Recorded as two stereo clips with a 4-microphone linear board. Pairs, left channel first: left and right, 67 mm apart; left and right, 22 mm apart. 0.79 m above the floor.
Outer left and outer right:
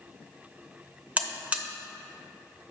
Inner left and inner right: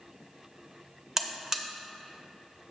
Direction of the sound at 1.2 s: 20° right (ahead or behind).